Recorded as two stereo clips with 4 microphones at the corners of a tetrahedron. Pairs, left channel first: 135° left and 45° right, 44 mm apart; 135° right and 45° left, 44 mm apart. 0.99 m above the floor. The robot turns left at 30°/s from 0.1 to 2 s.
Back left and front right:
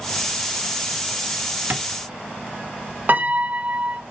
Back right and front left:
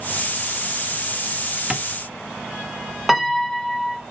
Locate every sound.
1.7 s tapping: 25° right, 0.9 m; by 1.9 s 35° right, 0.9 m
3.1 s a piano: 45° right, 0.9 m